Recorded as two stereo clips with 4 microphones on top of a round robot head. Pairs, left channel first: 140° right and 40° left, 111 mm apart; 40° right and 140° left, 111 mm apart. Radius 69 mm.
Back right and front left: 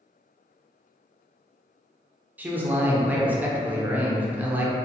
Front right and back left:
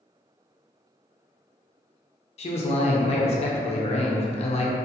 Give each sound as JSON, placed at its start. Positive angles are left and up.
{"t": 2.4, "sound": "a man speaking", "azimuth_deg": -30, "distance_m": 0.6}